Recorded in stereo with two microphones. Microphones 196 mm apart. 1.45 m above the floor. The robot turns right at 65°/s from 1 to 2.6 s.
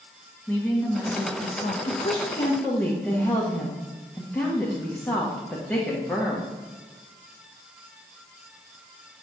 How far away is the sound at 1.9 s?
About 1.4 m.